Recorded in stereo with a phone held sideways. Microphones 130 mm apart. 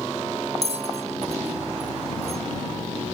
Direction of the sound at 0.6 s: 50° right (ahead or behind).